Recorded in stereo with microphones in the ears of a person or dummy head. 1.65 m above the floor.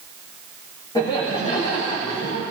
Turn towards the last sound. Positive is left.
turn(degrees=35)  # may be behind; listen again after turning